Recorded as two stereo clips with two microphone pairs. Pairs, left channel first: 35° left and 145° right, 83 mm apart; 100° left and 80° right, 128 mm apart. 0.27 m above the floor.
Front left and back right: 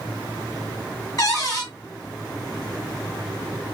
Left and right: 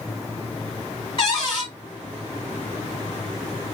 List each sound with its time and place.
1.2 s a cupboard door: 65° left, 1.8 m